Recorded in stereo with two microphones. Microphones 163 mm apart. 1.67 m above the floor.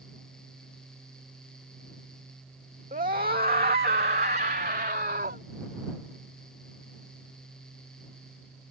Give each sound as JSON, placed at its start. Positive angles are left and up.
{"t": 2.9, "sound": "a scream", "side_deg": -55}